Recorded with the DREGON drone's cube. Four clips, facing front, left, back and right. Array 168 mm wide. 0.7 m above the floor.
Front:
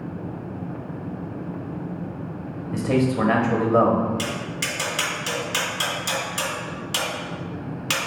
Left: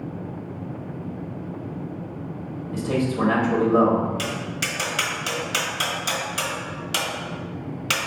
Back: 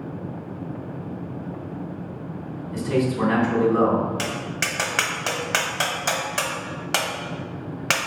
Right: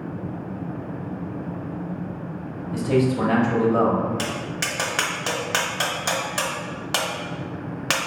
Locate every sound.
2.7 s a man speaking: 10° right, 1.1 m
4.2 s tapping: 140° right, 1.0 m